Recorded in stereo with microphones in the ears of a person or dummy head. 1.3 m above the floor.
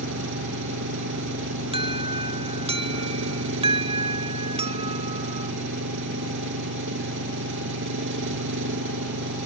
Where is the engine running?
70° right (ahead or behind).